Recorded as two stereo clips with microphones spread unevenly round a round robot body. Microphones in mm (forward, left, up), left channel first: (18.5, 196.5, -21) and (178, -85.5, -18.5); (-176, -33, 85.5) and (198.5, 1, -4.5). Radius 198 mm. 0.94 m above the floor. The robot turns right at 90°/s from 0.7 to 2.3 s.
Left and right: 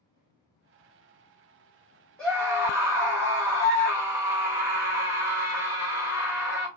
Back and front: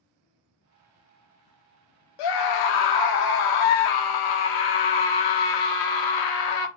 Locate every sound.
2.2 s a scream: 155° right, 1.1 m; by 6.7 s 145° right, 1.1 m